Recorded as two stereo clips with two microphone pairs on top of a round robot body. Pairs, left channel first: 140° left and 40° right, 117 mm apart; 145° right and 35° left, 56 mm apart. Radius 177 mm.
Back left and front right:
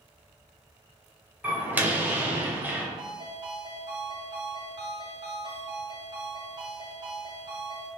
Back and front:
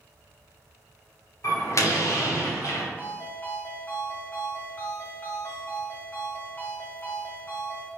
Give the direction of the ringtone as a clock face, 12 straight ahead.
3 o'clock.